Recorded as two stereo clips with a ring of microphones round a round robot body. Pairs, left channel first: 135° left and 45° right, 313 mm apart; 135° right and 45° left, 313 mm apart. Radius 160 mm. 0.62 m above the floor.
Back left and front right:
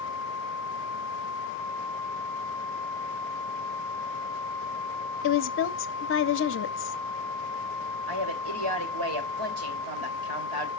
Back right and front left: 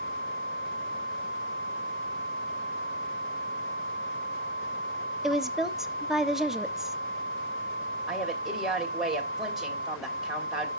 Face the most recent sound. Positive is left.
turn(degrees=-45)